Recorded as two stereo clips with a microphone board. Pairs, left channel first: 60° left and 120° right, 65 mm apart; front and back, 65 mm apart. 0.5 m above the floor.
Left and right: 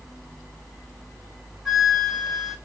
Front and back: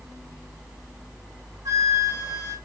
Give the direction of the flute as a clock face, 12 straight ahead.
7 o'clock.